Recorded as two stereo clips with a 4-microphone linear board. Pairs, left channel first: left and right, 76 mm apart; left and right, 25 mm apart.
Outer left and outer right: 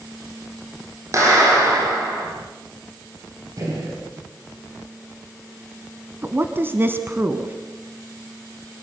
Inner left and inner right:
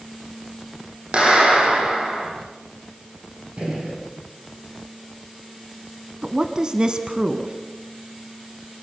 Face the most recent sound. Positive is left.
turn(degrees=-30)  # may be behind; listen again after turning